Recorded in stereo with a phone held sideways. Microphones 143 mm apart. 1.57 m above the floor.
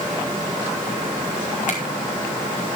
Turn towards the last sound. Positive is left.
turn(degrees=65)  # may be behind; listen again after turning